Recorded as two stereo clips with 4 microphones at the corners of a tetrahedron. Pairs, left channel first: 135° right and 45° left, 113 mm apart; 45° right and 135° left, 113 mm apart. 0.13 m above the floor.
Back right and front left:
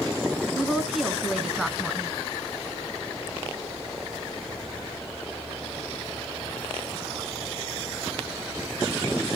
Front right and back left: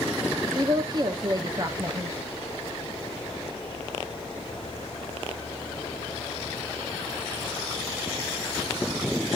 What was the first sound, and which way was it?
A woman speaking, 135° left.